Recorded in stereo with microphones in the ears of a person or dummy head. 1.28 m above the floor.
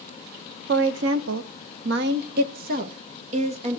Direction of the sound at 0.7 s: 60° right (ahead or behind).